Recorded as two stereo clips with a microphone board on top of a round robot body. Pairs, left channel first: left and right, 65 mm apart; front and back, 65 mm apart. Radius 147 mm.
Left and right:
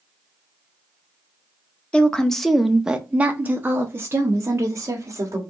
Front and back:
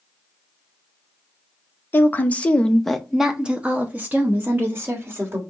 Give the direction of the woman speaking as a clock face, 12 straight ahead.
11 o'clock.